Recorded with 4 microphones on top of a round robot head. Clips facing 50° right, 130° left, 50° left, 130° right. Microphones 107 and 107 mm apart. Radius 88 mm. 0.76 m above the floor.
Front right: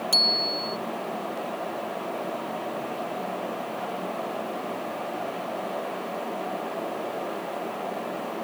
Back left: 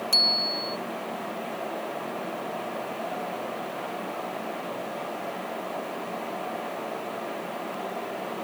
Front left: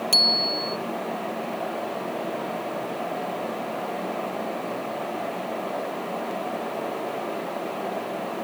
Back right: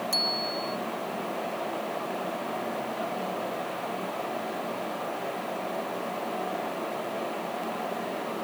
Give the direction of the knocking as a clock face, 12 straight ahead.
No knocking in this recording.